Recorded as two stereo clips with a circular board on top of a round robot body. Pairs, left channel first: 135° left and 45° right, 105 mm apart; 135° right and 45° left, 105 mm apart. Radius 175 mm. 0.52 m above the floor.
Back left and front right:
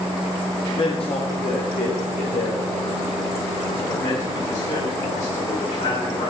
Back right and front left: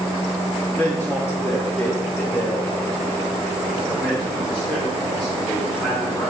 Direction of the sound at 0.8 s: 155° left.